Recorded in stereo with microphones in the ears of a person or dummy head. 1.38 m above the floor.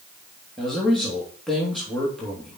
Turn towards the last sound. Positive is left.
turn(degrees=0)  # may be behind; listen again after turning